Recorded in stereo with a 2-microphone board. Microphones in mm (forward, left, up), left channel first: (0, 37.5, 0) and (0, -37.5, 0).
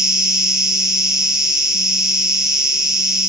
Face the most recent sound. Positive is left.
turn(degrees=-10)  # may be behind; listen again after turning